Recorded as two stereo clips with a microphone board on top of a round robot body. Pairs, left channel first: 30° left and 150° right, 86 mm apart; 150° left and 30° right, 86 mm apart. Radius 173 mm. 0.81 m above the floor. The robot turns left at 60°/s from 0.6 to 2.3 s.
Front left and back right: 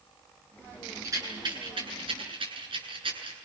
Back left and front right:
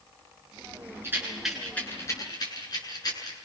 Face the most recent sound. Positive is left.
turn(degrees=-170)